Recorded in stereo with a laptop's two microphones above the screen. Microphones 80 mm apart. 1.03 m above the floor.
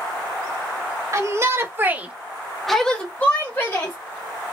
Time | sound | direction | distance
1.1 | a shout | 35° right (ahead or behind) | 1.1 m